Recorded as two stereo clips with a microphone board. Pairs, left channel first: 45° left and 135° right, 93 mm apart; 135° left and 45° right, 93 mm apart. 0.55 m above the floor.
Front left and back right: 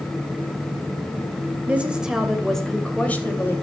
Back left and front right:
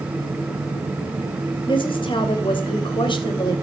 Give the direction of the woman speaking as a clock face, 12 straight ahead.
7 o'clock.